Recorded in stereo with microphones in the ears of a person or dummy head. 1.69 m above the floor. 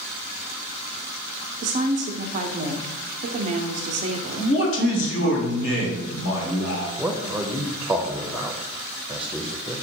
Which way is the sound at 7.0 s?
5° right (ahead or behind).